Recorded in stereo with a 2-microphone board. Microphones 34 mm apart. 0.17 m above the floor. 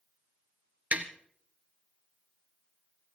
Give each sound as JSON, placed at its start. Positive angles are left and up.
{"t": 0.9, "sound": "tapping", "side_deg": -45, "distance_m": 1.7}